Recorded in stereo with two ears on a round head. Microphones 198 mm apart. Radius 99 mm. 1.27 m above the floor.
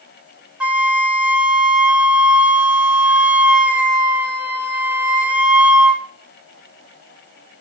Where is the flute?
5° right (ahead or behind), 1.5 m.